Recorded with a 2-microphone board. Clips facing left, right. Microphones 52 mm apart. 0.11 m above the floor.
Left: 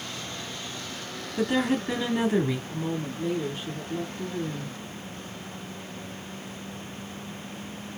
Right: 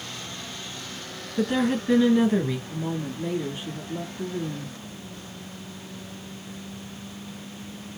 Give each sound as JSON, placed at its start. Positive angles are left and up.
{"t": 1.4, "sound": "a woman speaking", "side_deg": 5, "distance_m": 1.3}
{"t": 2.7, "sound": "a woman speaking", "side_deg": -15, "distance_m": 1.2}